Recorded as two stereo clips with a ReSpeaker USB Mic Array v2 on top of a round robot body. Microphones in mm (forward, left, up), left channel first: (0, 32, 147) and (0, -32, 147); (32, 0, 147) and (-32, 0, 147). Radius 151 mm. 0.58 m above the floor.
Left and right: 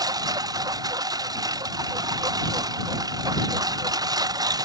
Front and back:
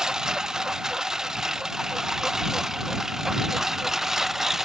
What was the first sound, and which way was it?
A lawn mower, 100° right.